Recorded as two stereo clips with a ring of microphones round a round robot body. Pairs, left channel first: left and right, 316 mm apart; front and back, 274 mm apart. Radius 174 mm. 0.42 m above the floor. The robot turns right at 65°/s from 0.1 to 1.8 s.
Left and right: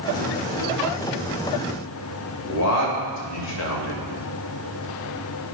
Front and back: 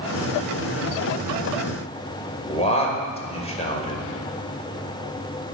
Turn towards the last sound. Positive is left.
turn(degrees=65)